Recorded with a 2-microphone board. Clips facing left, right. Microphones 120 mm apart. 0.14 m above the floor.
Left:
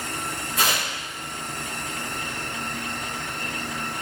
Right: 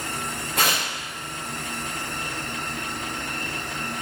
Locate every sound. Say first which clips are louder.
0.6 s tearing paper: right 1 dB; 55° right (ahead or behind), 5.5 m